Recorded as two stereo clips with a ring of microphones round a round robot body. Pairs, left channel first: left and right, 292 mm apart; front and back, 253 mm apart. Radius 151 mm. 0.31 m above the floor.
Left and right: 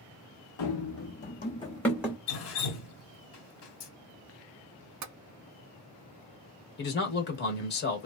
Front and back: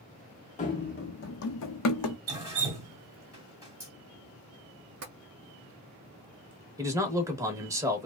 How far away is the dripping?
About 1.9 m.